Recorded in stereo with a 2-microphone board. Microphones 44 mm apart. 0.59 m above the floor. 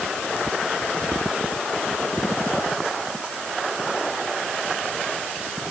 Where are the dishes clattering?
No dishes clattering in this recording.